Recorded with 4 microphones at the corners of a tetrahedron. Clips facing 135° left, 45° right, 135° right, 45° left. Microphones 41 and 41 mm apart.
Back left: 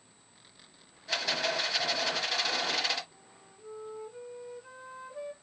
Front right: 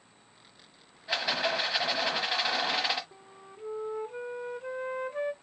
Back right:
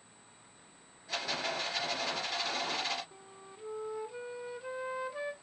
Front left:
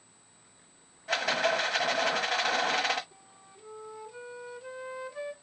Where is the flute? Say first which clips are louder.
Front right 6 dB, back right 3 dB; 60° right, 0.6 m.